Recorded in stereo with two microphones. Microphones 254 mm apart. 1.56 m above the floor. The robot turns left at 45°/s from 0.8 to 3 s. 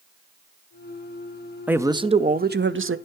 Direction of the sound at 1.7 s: 5° right.